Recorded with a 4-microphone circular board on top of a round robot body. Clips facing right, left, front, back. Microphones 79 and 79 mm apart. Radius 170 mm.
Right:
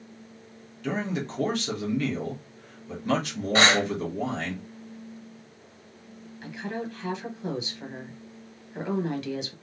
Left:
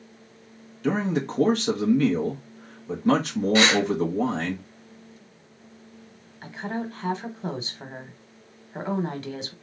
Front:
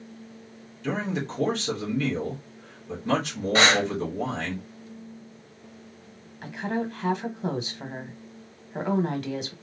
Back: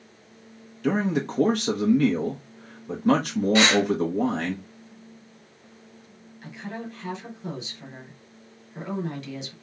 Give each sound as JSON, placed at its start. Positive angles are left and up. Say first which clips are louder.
{"t": 0.8, "sound": "a man speaking", "louder": "left 5 dB, back 5 dB", "azimuth_deg": 140, "distance_m": 1.3}
{"t": 3.5, "sound": "breathing", "louder": "even, even", "azimuth_deg": -45, "distance_m": 1.2}
{"t": 6.4, "sound": "a woman speaking", "louder": "left 2 dB, front 7 dB", "azimuth_deg": 40, "distance_m": 1.4}